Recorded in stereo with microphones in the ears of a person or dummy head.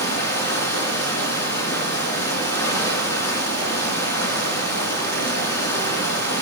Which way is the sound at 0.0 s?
20° left (ahead or behind).